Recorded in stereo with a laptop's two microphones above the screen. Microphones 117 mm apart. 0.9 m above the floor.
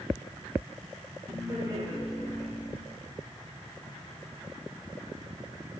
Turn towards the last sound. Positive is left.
turn(degrees=-20)  # may be behind; listen again after turning